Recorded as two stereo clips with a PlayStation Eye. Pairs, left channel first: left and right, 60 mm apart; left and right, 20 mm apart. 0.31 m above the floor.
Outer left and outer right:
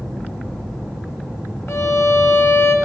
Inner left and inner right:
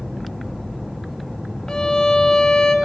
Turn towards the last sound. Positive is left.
turn(degrees=50)  # may be behind; listen again after turning